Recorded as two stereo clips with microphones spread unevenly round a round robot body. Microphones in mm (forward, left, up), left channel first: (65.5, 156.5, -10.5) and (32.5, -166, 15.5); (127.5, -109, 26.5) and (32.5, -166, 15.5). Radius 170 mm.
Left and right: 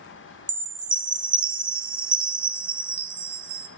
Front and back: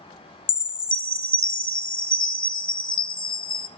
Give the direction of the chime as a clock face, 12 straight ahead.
12 o'clock.